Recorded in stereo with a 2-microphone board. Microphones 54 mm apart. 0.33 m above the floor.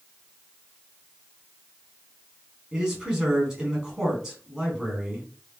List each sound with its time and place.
2.7 s a man speaking: 5° right (ahead or behind), 1.3 m